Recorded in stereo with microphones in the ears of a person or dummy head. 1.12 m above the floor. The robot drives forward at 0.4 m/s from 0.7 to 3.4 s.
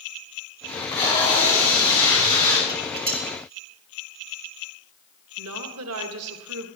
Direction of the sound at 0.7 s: 30° left (ahead or behind).